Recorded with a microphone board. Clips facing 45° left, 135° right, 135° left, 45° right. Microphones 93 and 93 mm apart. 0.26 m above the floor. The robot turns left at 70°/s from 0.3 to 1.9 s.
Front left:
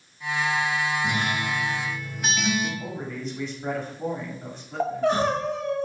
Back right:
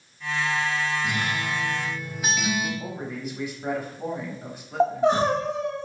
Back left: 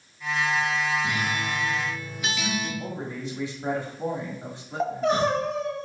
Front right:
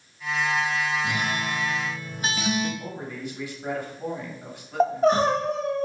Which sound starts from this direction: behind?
A man speaking, at 2.8 s.